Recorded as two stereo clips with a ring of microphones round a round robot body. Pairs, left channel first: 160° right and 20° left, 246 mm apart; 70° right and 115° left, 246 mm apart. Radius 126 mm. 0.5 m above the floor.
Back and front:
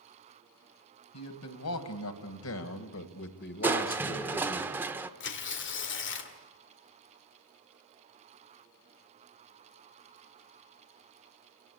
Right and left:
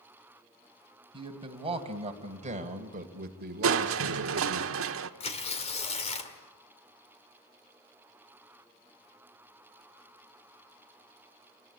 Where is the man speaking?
175° right, 3 m; by 4.6 s 130° left, 1.4 m.